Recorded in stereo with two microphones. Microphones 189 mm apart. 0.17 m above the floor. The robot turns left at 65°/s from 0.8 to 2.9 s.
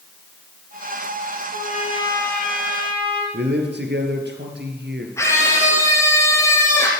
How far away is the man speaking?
About 3 m.